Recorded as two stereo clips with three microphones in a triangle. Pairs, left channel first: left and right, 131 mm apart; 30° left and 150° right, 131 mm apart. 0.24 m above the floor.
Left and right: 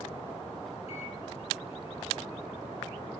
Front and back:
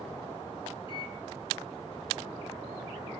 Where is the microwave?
70° left, 1.9 m.